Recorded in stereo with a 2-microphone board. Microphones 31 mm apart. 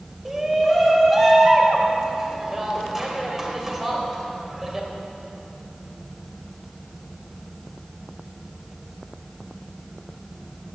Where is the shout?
15° right (ahead or behind), 2.5 m.